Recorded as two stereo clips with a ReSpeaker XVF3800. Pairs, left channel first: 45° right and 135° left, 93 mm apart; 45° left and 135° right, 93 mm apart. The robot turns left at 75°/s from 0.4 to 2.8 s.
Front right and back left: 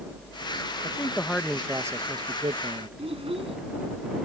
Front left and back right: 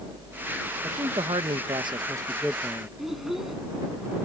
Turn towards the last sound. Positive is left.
turn(degrees=140)